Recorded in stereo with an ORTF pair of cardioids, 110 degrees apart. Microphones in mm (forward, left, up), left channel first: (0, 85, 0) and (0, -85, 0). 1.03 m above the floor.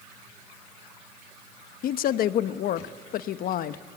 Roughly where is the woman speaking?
Ahead left.